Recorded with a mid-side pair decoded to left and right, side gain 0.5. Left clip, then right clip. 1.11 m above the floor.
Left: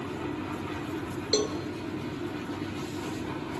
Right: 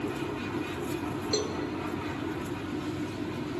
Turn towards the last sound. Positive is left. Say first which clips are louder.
# left 4 dB
turn(degrees=40)